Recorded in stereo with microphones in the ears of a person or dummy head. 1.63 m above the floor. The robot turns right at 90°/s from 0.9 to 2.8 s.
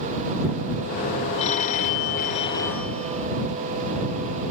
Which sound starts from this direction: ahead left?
A phone ringing, at 1.4 s.